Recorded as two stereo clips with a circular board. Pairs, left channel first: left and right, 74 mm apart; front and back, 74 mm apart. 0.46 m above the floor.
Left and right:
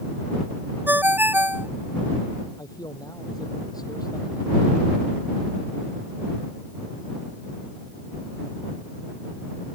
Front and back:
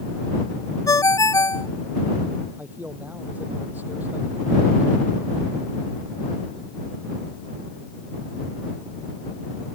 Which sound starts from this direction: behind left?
A man speaking, at 2.6 s.